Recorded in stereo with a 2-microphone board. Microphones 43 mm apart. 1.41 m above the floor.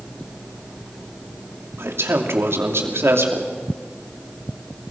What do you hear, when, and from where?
1.8 s a man speaking: 75° right (ahead or behind), 3 m